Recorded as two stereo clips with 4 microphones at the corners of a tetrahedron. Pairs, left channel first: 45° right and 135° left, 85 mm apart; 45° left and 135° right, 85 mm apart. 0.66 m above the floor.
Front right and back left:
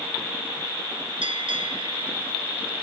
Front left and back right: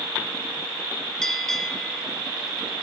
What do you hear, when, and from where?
1.2 s a bell: 130° left, 0.6 m